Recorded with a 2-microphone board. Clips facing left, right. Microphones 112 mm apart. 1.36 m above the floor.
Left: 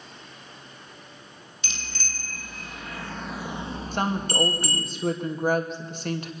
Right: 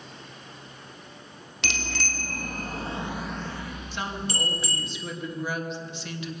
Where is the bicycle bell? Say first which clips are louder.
Right 8 dB; 70° right (ahead or behind), 2.5 m; by 4.8 s 60° left (ahead or behind), 2.5 m.